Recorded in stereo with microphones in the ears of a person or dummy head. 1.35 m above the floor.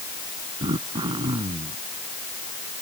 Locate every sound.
0.6 s throat clearing: 35° right (ahead or behind)